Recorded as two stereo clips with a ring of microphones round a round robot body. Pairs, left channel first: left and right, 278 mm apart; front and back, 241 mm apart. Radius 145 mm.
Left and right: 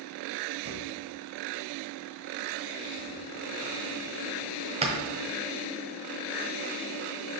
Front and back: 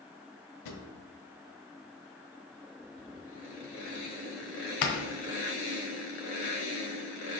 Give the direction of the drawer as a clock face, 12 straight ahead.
1 o'clock.